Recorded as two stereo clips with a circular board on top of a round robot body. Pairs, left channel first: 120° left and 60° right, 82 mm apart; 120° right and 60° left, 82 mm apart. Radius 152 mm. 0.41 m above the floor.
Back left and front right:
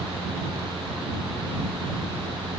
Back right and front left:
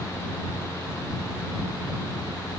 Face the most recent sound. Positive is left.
No sound to turn to.